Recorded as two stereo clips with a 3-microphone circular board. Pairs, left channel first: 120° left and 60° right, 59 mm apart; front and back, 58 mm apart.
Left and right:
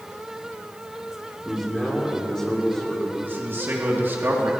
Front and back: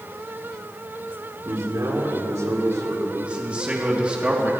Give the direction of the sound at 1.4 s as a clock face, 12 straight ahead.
5 o'clock.